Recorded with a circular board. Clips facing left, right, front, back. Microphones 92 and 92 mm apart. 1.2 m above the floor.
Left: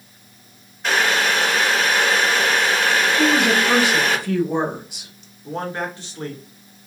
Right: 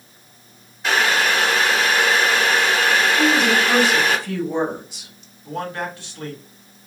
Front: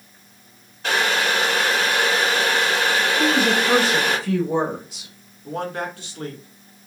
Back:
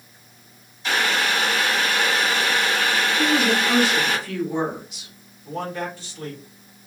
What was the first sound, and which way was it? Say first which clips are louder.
Boiling: right 1 dB, front 2 dB; 5° right.